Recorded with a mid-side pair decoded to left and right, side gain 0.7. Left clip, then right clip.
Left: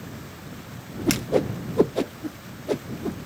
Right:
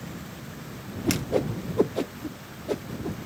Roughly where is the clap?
I don't hear a clap.